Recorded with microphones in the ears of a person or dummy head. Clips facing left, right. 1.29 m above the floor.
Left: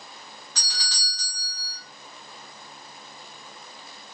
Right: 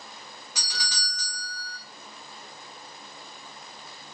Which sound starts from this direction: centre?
A doorbell, at 0.6 s.